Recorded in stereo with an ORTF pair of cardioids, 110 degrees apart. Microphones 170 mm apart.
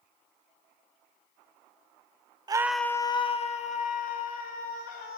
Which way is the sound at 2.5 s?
25° right.